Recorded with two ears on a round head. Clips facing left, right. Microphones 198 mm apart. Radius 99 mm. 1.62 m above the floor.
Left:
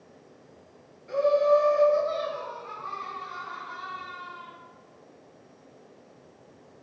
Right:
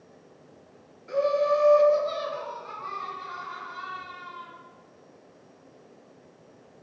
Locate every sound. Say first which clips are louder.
1.1 s laughter: left 2 dB; 20° right (ahead or behind), 0.7 m; by 4.5 s 45° right (ahead or behind), 1.6 m